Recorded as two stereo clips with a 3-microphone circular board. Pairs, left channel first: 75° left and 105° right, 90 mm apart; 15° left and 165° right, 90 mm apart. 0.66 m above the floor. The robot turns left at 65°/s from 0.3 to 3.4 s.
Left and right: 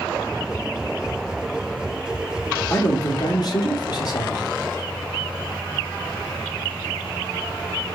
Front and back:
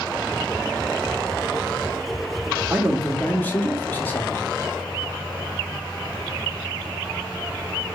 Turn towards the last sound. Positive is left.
turn(degrees=75)